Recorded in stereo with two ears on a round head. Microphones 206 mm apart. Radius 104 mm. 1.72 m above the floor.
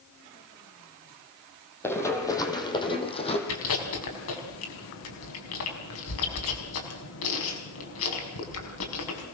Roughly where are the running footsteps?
Centre.